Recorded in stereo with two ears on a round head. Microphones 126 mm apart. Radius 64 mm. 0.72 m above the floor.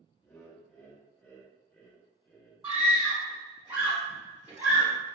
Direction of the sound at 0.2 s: 10° left (ahead or behind).